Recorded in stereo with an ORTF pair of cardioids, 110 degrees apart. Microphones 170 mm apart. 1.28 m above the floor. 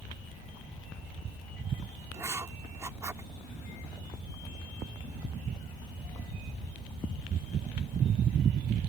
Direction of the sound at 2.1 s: 15° right.